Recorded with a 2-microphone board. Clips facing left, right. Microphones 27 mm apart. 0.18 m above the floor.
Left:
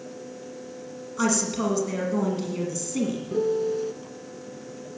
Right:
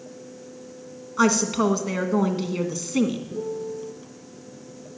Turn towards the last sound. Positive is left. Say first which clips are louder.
# left 6 dB
turn(degrees=60)  # may be behind; listen again after turning